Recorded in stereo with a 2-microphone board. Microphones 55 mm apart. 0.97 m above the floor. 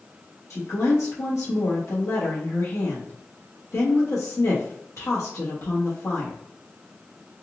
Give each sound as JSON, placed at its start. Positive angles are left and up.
{"t": 0.5, "sound": "a woman speaking", "side_deg": 65, "distance_m": 1.5}